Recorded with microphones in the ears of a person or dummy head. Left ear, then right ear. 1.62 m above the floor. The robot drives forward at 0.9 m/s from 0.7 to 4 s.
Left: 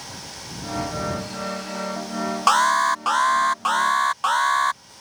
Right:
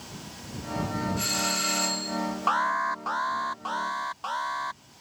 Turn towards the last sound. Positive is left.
turn(degrees=50)  # may be behind; listen again after turning